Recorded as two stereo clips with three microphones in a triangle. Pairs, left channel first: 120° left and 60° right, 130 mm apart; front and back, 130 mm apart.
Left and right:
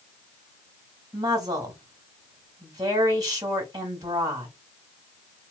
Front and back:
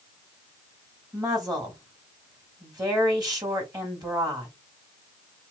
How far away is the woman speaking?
About 1.9 m.